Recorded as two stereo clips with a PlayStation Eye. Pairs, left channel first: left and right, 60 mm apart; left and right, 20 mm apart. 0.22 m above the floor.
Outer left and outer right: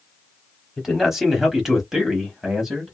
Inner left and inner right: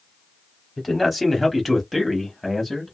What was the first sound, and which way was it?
A man speaking, 5° right (ahead or behind).